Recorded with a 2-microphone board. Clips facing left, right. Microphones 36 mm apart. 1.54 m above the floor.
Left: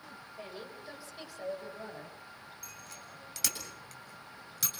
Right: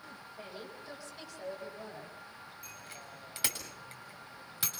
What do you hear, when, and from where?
0.4 s a woman speaking: 10° left (ahead or behind), 8.5 m; by 2.2 s 15° left (ahead or behind), 9.5 m
2.6 s a bicycle bell: 25° right (ahead or behind), 7 m